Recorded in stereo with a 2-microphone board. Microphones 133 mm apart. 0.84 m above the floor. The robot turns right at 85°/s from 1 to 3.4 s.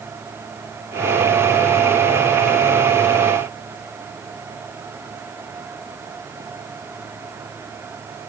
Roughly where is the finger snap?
I don't hear a finger snap.